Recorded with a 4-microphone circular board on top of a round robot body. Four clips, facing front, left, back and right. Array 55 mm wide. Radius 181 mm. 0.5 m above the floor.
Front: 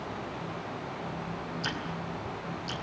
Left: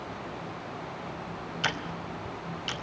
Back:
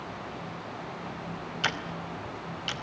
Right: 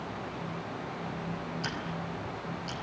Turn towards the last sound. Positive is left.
turn(degrees=140)